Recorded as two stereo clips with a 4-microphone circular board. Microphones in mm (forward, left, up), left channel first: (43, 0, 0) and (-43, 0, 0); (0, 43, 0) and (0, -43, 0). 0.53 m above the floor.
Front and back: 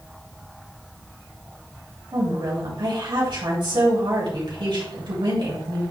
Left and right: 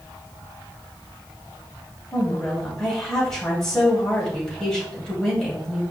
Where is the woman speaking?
175° left, 3.5 m.